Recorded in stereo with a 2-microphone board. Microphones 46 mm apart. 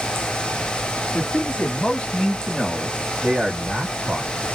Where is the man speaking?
35° left (ahead or behind), 1.5 m; by 4.5 s 35° right (ahead or behind), 1.5 m.